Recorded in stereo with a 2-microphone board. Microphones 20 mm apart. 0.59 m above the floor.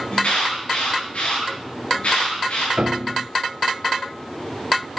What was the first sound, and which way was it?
An alarm, 80° left.